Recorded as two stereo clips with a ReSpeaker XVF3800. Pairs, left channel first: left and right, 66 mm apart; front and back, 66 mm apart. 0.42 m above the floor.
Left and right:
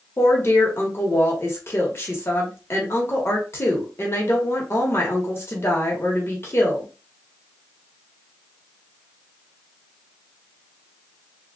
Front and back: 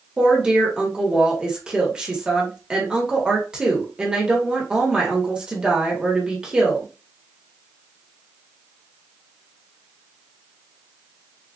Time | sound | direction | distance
0.2 | a woman speaking | 110° left | 1.2 m